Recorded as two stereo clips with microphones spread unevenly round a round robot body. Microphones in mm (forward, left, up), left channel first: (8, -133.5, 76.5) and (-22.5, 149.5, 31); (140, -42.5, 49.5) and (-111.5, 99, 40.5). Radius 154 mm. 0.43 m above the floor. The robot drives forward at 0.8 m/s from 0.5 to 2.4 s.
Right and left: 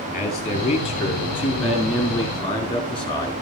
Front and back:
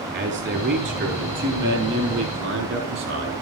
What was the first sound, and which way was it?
A man speaking, 155° right.